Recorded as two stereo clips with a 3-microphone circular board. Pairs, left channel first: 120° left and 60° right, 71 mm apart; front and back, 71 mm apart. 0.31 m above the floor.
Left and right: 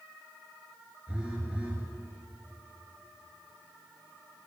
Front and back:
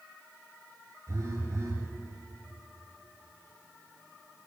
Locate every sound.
1.1 s a phone buzzing: 135° right, 6 m